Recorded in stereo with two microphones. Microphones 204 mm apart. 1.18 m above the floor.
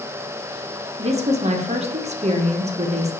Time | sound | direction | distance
1.0 | a woman speaking | 35° right (ahead or behind) | 0.6 m